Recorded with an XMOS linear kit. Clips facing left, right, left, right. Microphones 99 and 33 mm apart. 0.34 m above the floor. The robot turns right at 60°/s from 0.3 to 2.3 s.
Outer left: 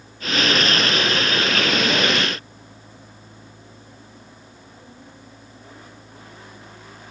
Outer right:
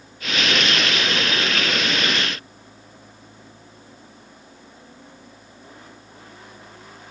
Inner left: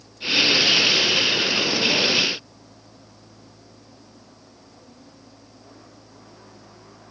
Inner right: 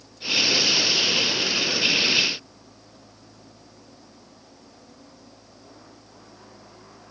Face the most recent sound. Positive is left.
No sound to turn to.